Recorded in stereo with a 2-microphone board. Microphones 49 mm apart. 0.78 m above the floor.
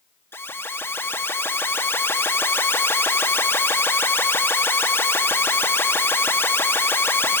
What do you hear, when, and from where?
0.3 s an alarm: 55° left (ahead or behind), 1.3 m